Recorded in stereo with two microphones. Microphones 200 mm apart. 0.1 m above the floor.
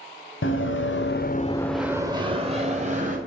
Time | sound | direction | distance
0.4 | running footsteps | 80° left | 1.1 m